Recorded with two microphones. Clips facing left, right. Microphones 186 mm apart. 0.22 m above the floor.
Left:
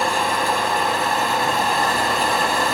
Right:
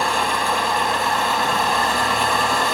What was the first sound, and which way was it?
An engine running, 40° left (ahead or behind).